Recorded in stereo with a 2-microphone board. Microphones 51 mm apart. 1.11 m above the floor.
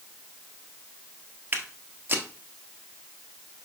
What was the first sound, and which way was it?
Footsteps, 35° right (ahead or behind).